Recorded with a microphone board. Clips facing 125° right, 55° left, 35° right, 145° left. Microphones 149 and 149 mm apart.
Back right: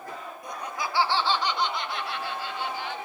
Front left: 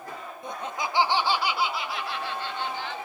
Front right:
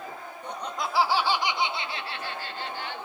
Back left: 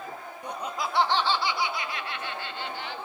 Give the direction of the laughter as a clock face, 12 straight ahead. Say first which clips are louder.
Front left 2 dB, even; 9 o'clock.